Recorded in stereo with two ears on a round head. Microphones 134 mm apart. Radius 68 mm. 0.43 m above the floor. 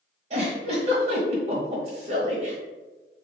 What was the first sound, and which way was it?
A giggle, 45° right (ahead or behind).